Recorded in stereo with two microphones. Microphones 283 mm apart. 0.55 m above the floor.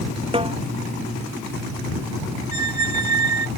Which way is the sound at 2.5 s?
85° left.